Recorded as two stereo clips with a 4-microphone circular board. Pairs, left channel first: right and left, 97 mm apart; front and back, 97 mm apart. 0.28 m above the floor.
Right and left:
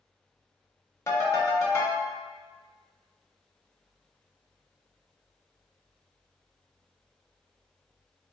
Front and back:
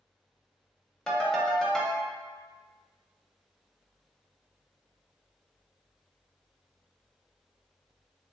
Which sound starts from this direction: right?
A ringtone, at 1.1 s.